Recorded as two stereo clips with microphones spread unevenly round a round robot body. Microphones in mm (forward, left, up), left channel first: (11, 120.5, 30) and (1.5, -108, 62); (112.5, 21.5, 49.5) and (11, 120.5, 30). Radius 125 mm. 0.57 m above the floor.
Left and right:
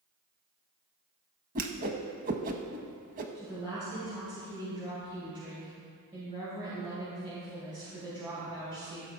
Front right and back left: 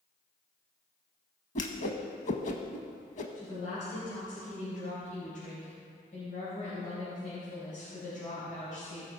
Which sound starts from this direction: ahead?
A woman speaking, at 3.4 s.